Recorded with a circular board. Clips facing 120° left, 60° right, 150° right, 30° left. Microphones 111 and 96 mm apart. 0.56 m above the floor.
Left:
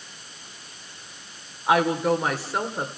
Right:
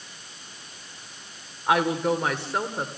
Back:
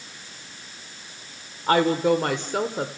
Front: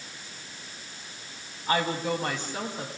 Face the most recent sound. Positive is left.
turn(degrees=-150)